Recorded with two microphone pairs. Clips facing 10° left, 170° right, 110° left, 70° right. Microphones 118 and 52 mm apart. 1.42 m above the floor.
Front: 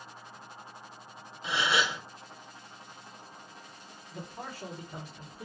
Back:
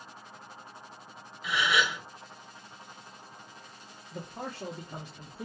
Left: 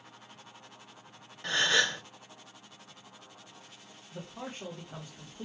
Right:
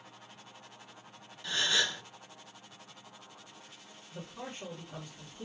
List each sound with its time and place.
1.4 s a gasp: 70° left, 0.8 m
4.1 s a man speaking: straight behind, 1.1 m